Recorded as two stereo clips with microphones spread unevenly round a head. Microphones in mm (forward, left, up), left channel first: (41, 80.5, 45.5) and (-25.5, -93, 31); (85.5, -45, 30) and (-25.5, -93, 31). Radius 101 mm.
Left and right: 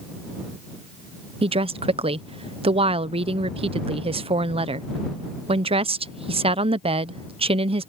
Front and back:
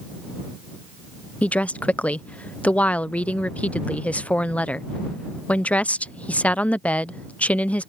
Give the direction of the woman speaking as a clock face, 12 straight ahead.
2 o'clock.